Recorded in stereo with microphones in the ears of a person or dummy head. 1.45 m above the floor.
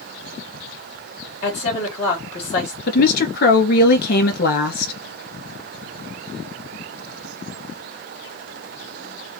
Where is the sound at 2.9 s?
65° left (ahead or behind), 2.5 m.